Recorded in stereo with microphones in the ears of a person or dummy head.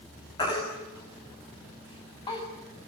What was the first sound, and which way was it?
A baby crying, 30° left (ahead or behind).